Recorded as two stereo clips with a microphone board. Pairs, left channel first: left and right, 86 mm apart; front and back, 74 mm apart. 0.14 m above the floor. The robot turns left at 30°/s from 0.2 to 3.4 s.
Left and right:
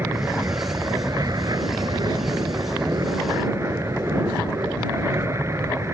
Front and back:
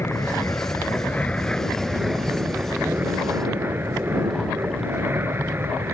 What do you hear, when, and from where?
0.0 s an aircraft: 35° right; by 5.9 s 135° right